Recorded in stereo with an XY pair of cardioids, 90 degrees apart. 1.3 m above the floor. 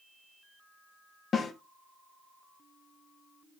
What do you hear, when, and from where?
1.3 s a snare drum: 50° left, 1.2 m